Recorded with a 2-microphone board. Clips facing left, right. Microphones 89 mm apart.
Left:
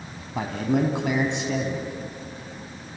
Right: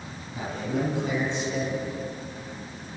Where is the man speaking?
80° left, 4 m.